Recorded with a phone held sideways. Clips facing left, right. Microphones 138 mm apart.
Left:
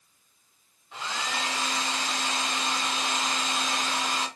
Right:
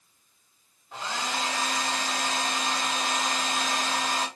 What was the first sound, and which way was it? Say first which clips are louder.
A hair dryer: right 1 dB; 40° right (ahead or behind).